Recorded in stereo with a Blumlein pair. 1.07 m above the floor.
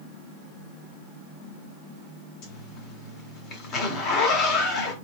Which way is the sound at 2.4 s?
35° left.